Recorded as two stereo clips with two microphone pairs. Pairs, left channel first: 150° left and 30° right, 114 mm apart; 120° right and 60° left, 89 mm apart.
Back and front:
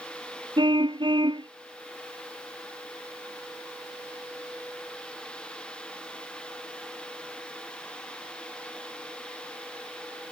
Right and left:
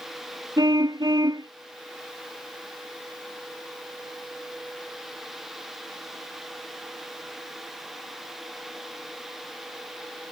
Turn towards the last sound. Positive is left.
turn(degrees=15)